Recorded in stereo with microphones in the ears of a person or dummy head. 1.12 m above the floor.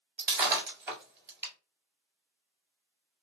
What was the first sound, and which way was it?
Breaking glass, 10° right (ahead or behind).